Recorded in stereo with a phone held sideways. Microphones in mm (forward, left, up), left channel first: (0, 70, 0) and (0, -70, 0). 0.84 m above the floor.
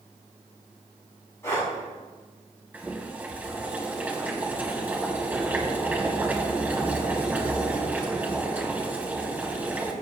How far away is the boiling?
About 3 m.